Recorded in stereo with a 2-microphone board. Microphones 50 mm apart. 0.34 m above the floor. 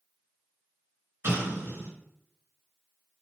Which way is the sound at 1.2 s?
55° right (ahead or behind).